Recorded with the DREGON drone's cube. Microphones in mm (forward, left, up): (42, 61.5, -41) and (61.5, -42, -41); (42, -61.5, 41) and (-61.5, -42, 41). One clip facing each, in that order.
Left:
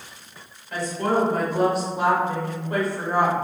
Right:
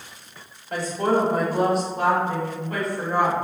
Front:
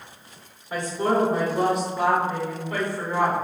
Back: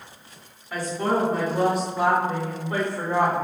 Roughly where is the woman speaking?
Ahead right.